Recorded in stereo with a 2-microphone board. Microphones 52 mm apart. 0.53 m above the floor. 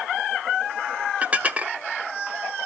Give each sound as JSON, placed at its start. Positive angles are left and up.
{"t": 1.2, "sound": "dishes clattering", "side_deg": -30, "distance_m": 0.8}